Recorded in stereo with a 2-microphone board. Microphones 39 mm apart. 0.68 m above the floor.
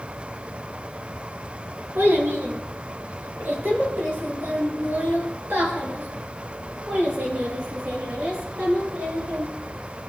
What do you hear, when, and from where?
1.9 s a child speaking: 80° right, 5.5 m; by 9.4 s 55° right (ahead or behind), 10.5 m